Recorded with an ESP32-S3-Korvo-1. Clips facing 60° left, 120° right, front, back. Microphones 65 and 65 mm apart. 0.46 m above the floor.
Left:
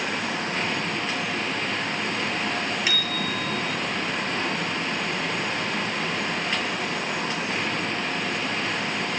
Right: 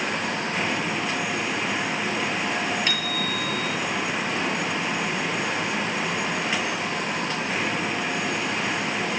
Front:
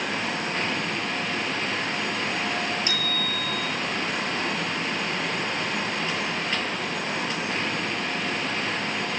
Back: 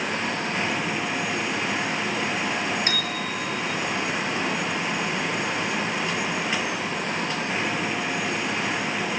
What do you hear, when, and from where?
2.9 s a bicycle bell: 145° left, 6.5 m